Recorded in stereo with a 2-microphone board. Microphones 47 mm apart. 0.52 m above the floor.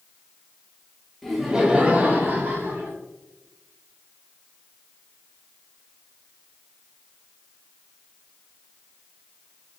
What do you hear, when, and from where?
1.2 s laughter: 5° left (ahead or behind), 0.7 m; by 2.9 s 60° right (ahead or behind), 1.2 m